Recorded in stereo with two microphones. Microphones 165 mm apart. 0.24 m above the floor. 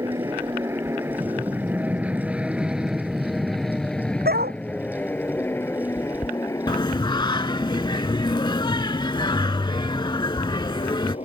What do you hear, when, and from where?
0.0 s an aircraft: 20° right (ahead or behind); by 11.2 s 40° left (ahead or behind)
4.2 s a dog barking: 75° right (ahead or behind)
6.7 s singing: 30° left (ahead or behind)